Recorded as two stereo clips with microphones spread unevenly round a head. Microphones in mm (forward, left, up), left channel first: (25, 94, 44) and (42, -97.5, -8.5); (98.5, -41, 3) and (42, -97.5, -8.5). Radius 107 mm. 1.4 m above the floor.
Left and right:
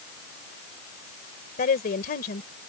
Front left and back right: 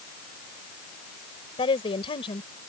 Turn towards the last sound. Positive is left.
turn(degrees=50)